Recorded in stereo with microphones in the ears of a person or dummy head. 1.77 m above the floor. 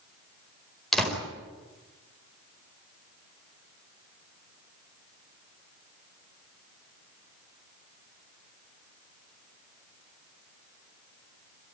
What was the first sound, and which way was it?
A door slam, centre (ahead or behind).